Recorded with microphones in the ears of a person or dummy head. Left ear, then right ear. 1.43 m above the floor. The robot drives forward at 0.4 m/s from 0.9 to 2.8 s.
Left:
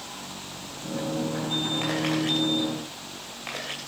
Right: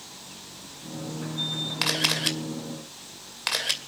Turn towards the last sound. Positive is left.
turn(degrees=-65)  # may be behind; listen again after turning